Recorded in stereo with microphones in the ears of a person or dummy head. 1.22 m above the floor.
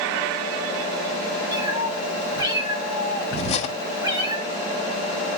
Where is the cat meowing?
20° right (ahead or behind), 4 m.